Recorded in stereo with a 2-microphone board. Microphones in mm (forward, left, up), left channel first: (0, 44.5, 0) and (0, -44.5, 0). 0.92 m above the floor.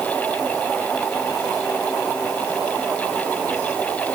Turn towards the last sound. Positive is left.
No sound to turn to.